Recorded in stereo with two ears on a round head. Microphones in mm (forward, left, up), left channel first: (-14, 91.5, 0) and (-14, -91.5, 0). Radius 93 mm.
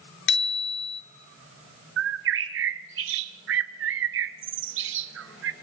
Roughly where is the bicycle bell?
Left.